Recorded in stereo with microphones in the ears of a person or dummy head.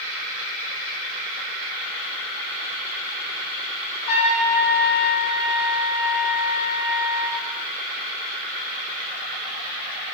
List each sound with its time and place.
4.1 s a trumpet: 45° left (ahead or behind), 1.0 m